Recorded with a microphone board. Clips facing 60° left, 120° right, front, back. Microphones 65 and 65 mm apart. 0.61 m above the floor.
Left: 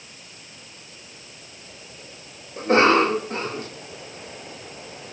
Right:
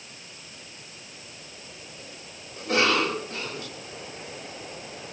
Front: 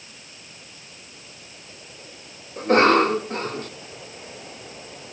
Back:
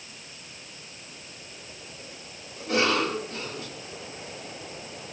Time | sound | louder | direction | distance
2.6 | a cough | left 7 dB, front 9 dB | 20° left | 1.7 m